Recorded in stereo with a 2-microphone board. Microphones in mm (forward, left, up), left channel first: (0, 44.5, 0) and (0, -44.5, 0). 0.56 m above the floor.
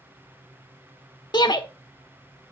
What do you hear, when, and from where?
1.3 s a shout: 50° left (ahead or behind), 1.5 m